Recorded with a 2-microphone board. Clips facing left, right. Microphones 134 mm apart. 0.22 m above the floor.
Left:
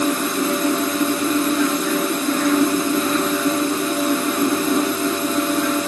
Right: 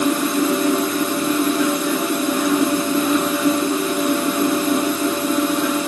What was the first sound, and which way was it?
Only background noise.